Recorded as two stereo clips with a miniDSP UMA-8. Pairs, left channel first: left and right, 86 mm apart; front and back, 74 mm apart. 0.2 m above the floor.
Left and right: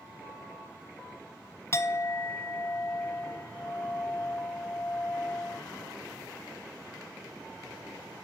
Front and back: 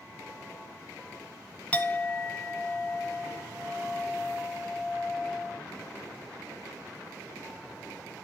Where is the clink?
60° left, 0.9 m.